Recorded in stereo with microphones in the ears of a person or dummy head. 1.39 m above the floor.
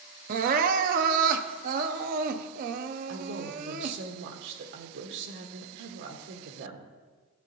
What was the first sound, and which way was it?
Crying, 45° right (ahead or behind).